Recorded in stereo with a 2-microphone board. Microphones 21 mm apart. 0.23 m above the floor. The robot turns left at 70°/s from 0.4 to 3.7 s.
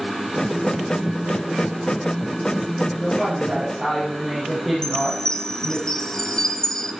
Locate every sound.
3.0 s a woman speaking: 55° left, 7 m; by 5.8 s 5° left, 7 m
4.8 s a chime: 25° left (ahead or behind), 1.7 m